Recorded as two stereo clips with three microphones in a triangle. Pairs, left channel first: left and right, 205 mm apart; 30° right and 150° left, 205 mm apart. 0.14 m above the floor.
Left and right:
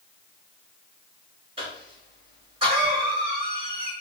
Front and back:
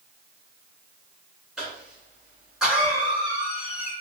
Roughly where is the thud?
No thud in this recording.